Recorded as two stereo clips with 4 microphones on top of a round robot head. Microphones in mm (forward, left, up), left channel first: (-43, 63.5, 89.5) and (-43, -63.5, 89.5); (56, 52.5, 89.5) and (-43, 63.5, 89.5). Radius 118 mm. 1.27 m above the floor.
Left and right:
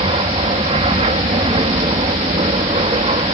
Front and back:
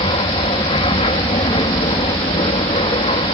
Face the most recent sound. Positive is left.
turn(degrees=-40)